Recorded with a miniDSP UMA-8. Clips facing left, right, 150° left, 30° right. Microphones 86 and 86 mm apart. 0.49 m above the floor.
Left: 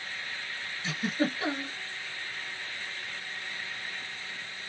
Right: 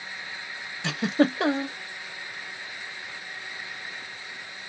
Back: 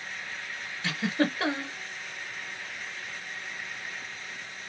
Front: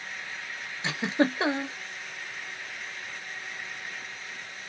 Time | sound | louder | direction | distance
0.8 | a giggle | right 7 dB, front 2 dB | 95° right | 0.8 m